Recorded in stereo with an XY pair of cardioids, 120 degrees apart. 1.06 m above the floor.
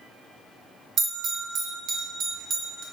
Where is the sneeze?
I don't hear a sneeze.